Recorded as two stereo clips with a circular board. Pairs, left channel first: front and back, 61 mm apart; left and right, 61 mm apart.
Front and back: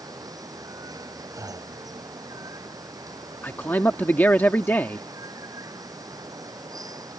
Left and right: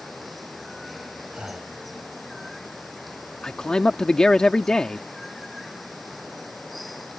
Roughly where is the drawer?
I don't hear a drawer.